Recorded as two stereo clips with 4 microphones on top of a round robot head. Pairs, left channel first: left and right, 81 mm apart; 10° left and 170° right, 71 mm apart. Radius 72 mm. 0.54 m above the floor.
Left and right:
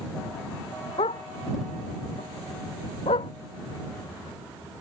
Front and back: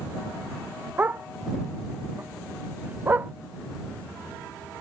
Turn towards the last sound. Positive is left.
turn(degrees=125)